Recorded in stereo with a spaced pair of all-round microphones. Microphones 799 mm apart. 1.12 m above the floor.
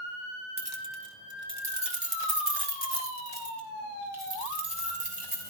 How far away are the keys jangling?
About 1.0 m.